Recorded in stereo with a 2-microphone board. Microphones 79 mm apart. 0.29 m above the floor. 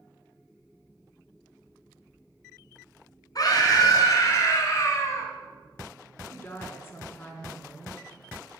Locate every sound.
3.4 s a scream: 50° left (ahead or behind), 3.5 m; by 5.3 s 35° left (ahead or behind), 2.5 m
6.2 s a woman speaking: 25° left (ahead or behind), 3 m